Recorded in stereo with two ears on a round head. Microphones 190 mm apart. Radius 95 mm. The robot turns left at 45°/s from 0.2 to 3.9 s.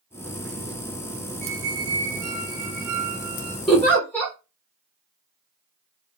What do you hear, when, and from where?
1.4 s a squeak: 10° right, 1.6 m; by 3.6 s 110° right, 1.6 m
3.7 s a giggle: centre (ahead or behind), 1.4 m; by 4.3 s 10° left (ahead or behind), 1.4 m